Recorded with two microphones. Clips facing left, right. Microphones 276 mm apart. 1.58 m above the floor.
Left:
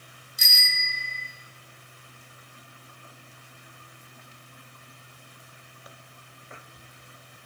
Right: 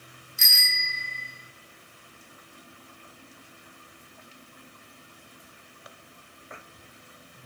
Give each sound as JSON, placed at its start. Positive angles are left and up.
{"t": 0.4, "sound": "a bicycle bell", "side_deg": 40, "distance_m": 2.5}